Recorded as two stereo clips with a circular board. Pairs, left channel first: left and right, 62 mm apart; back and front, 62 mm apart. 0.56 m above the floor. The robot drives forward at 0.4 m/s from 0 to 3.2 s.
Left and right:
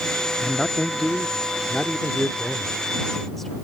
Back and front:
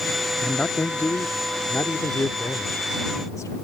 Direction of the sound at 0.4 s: 155° left.